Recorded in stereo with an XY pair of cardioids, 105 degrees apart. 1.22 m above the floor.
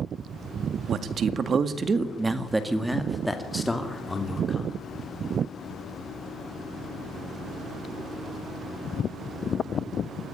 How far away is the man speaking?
About 2 m.